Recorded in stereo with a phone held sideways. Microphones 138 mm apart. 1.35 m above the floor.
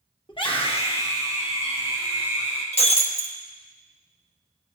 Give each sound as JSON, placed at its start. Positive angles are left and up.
{"t": 0.3, "sound": "a scream", "side_deg": 35, "distance_m": 1.1}
{"t": 2.7, "sound": "breaking glass", "side_deg": 50, "distance_m": 1.0}